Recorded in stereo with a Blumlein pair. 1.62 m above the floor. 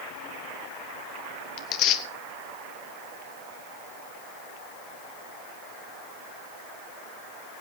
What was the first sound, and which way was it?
Tearing paper, 35° left.